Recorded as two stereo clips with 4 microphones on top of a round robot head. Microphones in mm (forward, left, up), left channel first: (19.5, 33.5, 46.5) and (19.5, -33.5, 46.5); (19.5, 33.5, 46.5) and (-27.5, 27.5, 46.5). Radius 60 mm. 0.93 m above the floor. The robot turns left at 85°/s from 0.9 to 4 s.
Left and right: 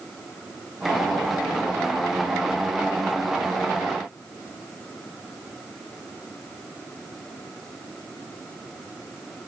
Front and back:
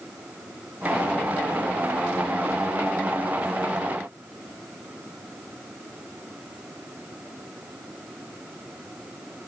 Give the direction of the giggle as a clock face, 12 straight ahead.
No giggle in this recording.